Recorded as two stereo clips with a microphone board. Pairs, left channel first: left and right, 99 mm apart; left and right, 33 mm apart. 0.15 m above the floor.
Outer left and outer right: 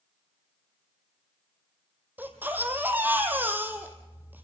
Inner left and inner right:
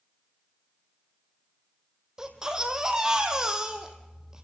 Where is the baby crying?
20° right (ahead or behind), 2.5 m.